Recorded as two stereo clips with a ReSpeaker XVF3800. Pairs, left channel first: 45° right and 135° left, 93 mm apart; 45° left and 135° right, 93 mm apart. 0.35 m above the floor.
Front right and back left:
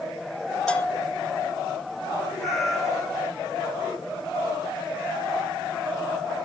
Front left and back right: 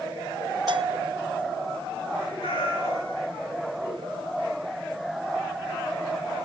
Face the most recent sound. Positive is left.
turn(degrees=45)